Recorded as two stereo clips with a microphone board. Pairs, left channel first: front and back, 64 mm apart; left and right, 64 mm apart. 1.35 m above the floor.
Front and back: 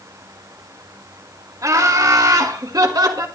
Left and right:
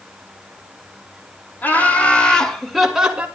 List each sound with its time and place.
1.6 s laughter: 155° left, 3 m; by 3.3 s 160° right, 1.9 m